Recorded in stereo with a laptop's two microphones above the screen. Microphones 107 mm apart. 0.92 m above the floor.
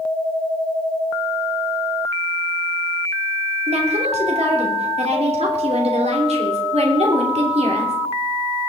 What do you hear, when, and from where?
3.7 s a woman speaking: 75° right (ahead or behind), 2.5 m